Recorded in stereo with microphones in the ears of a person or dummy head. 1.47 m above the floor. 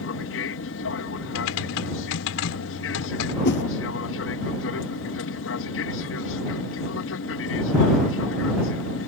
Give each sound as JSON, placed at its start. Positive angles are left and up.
{"t": 0.0, "sound": "an aircraft", "side_deg": 60}
{"t": 1.4, "sound": "typing on a keyboard", "side_deg": 70}
{"t": 3.5, "sound": "a whoosh", "side_deg": 60}